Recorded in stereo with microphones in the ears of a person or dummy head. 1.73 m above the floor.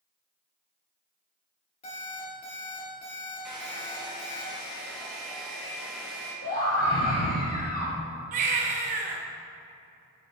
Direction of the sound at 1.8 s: 35° left (ahead or behind).